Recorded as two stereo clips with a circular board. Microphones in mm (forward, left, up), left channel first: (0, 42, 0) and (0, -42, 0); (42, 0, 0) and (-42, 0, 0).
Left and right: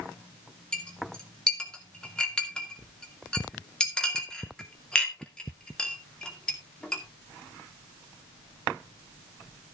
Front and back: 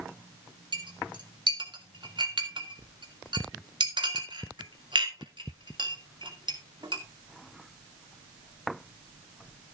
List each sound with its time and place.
0.7 s a clink: 170° left, 2.5 m